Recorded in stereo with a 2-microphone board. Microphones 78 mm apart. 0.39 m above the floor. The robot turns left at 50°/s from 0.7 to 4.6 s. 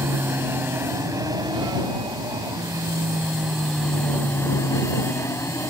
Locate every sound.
0.0 s an aircraft: 30° right (ahead or behind); by 5.7 s 35° left (ahead or behind)